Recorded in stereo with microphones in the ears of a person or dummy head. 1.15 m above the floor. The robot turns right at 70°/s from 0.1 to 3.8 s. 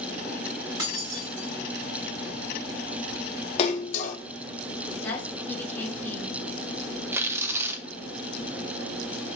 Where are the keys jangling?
165° right, 1.8 m; by 1.5 s 120° right, 1.8 m.